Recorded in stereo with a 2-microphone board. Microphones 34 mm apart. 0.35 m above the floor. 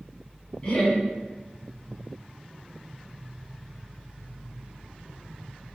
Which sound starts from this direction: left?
Laughter, at 0.6 s.